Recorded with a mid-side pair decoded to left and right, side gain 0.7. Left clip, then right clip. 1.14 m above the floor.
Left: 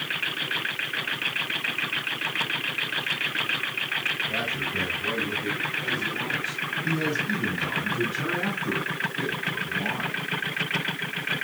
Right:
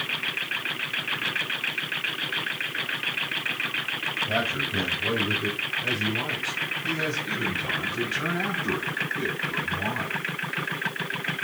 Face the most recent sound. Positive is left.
turn(degrees=-15)